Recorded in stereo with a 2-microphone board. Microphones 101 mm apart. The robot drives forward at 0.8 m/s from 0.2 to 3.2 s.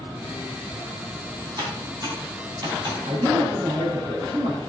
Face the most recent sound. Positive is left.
turn(degrees=-65)  # may be behind; listen again after turning